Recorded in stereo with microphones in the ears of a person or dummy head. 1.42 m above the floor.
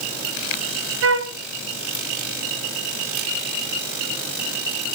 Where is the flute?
65° right (ahead or behind), 0.9 m.